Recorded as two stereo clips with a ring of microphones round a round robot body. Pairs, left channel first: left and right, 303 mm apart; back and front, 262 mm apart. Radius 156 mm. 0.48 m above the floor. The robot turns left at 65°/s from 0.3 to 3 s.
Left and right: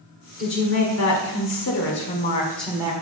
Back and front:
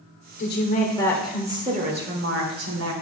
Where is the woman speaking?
145° left, 1.5 m; by 2.9 s 20° right, 1.5 m.